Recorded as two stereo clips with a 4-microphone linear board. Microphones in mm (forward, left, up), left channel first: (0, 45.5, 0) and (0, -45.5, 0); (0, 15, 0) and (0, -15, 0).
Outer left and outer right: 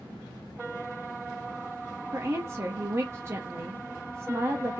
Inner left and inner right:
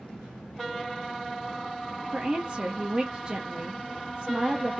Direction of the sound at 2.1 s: 30° right (ahead or behind).